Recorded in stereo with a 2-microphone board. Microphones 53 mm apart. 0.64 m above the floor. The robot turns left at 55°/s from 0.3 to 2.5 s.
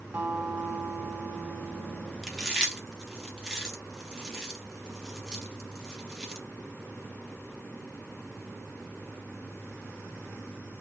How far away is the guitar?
About 1.3 m.